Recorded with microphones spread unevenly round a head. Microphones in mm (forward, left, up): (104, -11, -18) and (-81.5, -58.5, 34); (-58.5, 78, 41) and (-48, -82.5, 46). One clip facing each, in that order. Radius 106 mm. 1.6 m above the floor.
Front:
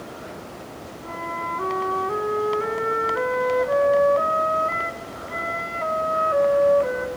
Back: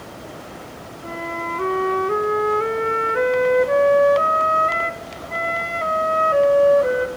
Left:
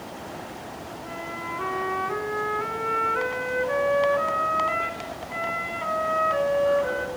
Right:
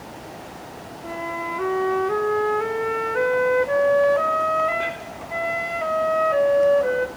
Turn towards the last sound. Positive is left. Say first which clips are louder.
# back 5 dB, right 9 dB
turn(degrees=-125)